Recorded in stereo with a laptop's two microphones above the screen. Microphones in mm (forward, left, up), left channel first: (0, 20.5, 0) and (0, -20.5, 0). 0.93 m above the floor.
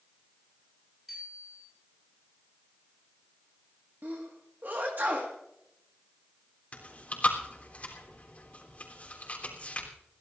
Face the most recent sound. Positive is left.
turn(degrees=35)  # may be behind; listen again after turning